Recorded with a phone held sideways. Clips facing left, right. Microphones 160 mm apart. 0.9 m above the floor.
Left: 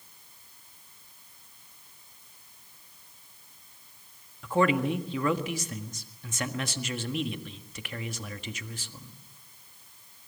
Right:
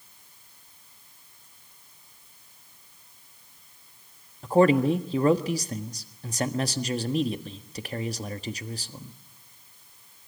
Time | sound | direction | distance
4.4 | a man speaking | 40° right (ahead or behind) | 1.4 m